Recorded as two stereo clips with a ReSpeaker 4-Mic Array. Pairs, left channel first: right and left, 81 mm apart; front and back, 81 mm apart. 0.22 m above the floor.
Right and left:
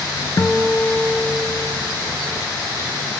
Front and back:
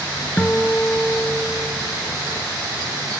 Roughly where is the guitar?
Ahead right.